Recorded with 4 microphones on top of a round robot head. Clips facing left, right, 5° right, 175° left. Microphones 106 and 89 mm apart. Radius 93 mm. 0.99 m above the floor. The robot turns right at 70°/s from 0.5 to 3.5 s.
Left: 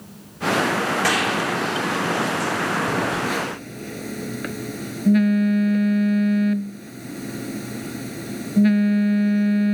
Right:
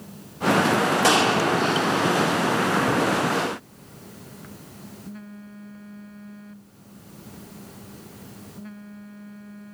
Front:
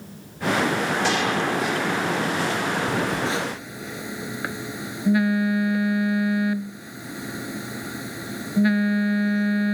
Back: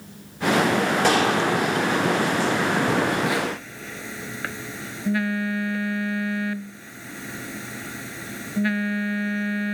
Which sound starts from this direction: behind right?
A gunshot, at 1.0 s.